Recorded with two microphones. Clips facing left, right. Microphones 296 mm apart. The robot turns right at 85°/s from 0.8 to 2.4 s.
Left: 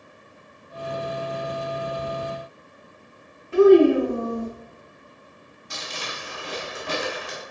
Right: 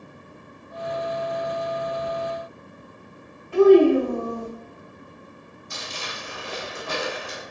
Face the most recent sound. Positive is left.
turn(degrees=65)  # may be behind; listen again after turning